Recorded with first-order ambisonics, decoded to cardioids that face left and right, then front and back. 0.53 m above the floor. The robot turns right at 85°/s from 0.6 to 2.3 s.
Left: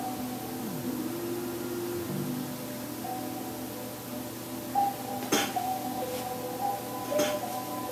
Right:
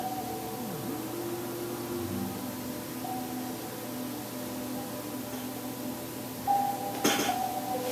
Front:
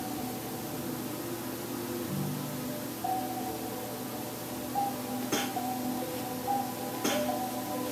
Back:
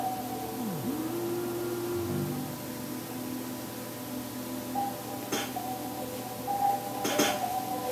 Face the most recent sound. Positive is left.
turn(degrees=135)